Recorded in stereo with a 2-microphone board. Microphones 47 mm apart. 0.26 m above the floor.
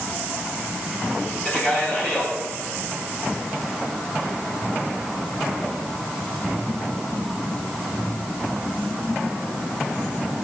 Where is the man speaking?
25° left (ahead or behind), 6 m.